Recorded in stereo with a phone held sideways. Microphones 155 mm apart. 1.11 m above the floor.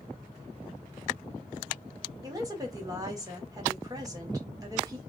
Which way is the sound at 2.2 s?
25° right (ahead or behind).